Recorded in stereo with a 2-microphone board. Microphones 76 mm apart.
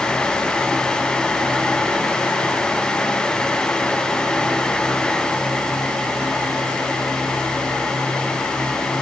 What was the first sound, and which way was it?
Only background noise.